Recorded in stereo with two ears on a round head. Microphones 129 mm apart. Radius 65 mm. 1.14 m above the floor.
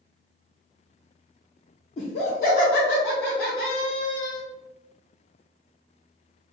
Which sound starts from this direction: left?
Laughter, at 2.0 s.